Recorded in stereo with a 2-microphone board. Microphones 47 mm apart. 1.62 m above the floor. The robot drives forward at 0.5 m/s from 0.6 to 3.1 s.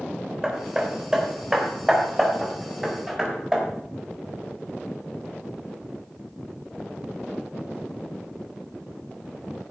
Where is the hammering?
15° right (ahead or behind), 3 m; by 3.6 s 10° right (ahead or behind), 4.5 m.